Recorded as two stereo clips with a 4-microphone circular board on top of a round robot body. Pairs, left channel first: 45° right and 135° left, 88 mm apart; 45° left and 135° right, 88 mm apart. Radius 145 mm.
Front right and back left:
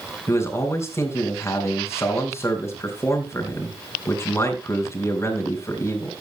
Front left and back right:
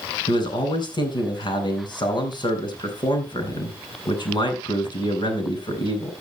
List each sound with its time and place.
0.3 s a man speaking: 15° left, 5 m